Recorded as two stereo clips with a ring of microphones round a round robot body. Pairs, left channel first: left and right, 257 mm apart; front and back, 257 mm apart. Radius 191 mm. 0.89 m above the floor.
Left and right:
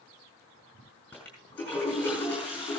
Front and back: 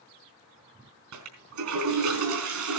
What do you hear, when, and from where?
1.1 s a toilet flushing: 175° left, 4 m